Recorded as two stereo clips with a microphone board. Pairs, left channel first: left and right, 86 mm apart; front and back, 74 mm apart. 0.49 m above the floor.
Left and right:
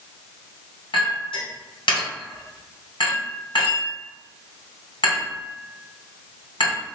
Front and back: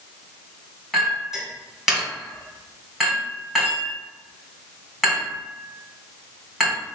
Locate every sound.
0.9 s a clink: 95° left, 2.5 m